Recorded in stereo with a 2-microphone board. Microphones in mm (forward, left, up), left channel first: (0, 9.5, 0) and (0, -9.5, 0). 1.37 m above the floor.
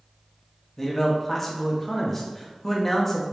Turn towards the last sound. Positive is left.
turn(degrees=15)  # may be behind; listen again after turning